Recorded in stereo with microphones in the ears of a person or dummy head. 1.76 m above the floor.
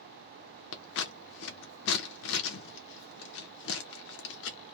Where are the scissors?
80° left, 0.7 m.